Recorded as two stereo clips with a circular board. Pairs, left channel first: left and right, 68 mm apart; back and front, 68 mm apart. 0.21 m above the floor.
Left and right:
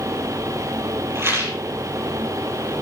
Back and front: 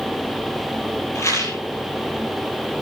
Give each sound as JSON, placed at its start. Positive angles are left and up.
{"t": 1.1, "sound": "a rattle", "azimuth_deg": -135, "distance_m": 4.0}